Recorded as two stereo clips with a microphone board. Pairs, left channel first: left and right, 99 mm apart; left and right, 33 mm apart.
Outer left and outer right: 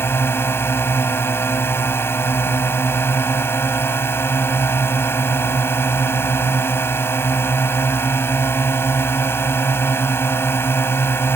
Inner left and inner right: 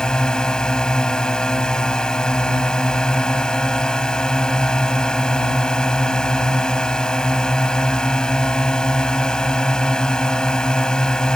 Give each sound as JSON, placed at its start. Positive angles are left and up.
{"t": 0.0, "sound": "a drone", "side_deg": 25}